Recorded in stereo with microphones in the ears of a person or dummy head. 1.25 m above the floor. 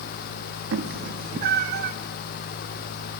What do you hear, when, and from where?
0.7 s a cat meowing: 65° right (ahead or behind), 1.1 m